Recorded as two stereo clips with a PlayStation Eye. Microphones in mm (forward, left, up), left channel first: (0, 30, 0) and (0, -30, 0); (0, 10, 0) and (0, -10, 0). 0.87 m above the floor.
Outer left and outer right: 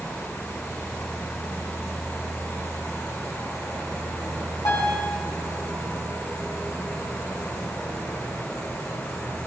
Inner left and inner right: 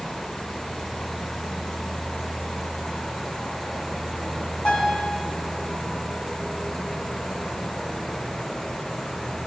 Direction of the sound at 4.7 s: 85° left.